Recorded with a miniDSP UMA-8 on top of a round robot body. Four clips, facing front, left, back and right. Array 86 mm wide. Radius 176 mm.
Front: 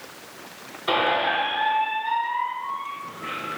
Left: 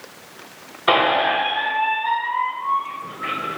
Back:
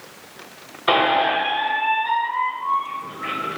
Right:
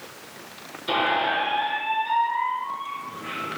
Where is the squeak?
120° left, 1.1 m.